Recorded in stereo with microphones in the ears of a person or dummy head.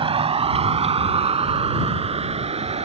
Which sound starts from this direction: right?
A vehicle, at 0.0 s.